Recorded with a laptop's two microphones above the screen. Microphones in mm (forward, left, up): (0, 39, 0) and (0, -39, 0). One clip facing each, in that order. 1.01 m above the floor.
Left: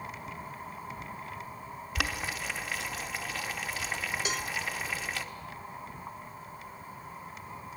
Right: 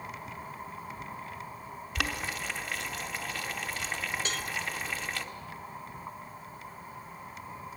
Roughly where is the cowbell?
Centre.